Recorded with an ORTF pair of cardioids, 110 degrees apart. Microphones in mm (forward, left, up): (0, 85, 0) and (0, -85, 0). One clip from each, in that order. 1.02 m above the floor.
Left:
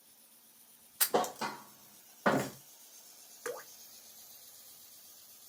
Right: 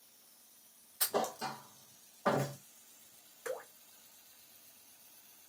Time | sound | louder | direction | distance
1.0 | a thud | left 3 dB | 40° left | 0.8 m
3.5 | dripping | even | 40° left | 1.4 m